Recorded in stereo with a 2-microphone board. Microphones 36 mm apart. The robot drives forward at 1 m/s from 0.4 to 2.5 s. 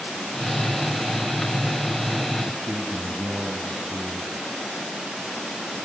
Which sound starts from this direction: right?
A man speaking, at 2.5 s.